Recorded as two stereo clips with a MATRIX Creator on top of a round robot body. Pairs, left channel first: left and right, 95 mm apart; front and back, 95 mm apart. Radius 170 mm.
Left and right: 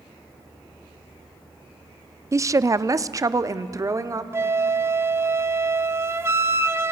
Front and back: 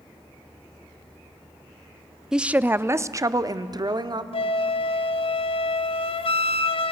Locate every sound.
2.3 s a woman speaking: 100° right, 0.8 m; by 4.2 s 145° right, 1.5 m
4.3 s a flute: 25° right, 0.9 m